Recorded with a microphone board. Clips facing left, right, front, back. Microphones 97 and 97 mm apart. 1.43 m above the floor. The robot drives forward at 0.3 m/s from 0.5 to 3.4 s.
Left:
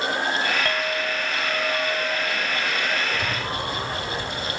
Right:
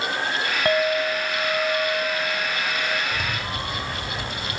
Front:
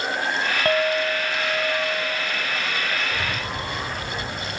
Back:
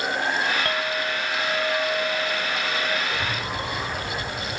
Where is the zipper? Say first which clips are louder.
Left 2 dB, even; 55° right, 8.5 m.